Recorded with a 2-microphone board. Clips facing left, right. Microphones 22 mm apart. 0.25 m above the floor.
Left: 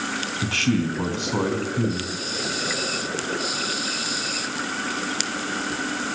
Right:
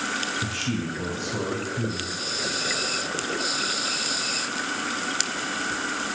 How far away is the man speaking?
About 2.5 m.